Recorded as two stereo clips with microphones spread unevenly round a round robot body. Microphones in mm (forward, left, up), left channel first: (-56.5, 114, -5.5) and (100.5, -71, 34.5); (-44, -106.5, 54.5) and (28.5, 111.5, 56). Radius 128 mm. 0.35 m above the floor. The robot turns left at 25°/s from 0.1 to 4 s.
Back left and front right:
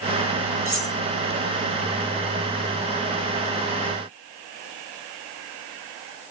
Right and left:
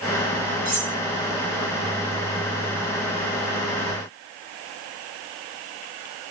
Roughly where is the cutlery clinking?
Ahead.